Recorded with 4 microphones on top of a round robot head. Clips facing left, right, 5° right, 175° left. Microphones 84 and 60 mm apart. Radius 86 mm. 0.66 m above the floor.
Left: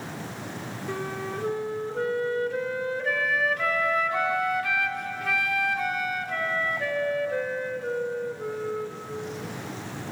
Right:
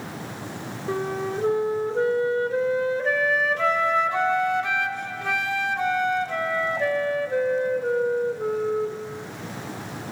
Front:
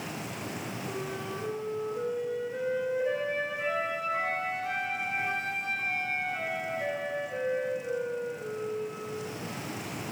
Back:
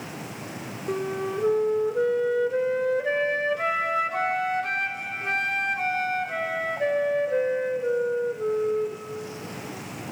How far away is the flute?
About 1.2 m.